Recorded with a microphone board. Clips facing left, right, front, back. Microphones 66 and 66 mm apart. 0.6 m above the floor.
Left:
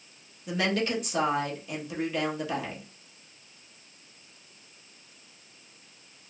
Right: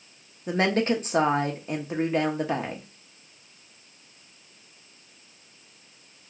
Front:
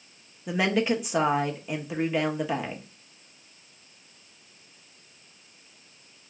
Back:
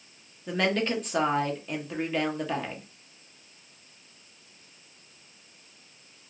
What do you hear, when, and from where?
0.5 s a woman speaking: 75° right, 0.6 m